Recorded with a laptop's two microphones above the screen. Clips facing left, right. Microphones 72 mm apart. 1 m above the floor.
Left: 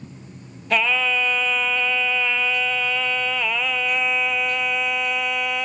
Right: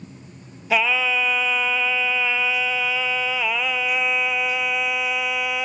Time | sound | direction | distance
0.7 | singing | 5° right (ahead or behind) | 0.9 m